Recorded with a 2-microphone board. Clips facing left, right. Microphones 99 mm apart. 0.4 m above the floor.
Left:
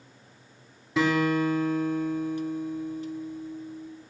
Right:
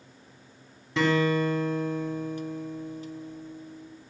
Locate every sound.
1.0 s a guitar: 5° left (ahead or behind), 2.5 m